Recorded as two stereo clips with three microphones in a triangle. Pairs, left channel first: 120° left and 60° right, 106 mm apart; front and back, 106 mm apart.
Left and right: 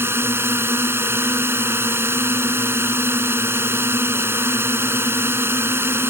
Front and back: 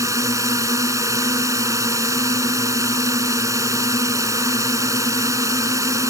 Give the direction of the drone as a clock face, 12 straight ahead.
4 o'clock.